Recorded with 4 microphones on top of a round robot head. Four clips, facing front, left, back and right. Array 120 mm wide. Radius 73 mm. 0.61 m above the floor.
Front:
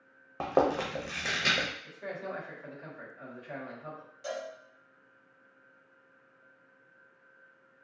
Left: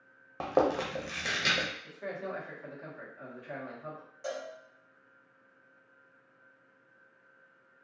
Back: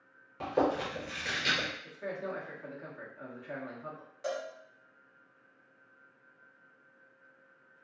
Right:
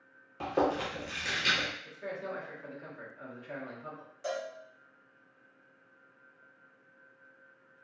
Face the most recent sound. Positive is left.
turn(degrees=160)